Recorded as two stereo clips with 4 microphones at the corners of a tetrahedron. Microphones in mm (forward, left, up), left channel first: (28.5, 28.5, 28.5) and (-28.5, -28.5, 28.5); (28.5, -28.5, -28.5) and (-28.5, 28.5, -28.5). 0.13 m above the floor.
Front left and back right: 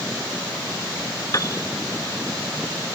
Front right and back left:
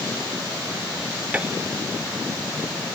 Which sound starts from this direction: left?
A piano, at 1.3 s.